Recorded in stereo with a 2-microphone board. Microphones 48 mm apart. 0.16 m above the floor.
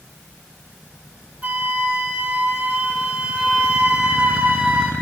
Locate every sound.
1.4 s a flute: 25° right (ahead or behind), 1.2 m